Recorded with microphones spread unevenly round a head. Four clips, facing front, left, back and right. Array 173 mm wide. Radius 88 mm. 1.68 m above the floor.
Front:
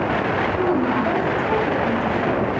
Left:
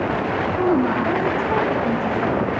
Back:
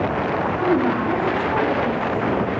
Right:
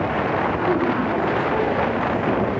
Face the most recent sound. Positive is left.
turn(degrees=50)